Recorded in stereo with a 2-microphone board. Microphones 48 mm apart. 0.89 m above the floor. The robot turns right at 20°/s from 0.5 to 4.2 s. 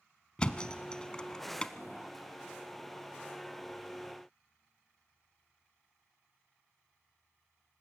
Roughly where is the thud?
Centre.